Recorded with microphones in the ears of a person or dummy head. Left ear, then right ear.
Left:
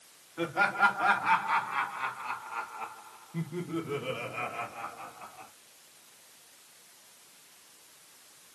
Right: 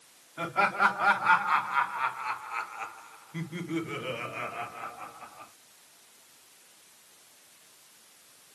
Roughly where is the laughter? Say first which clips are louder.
Right 1 dB; right.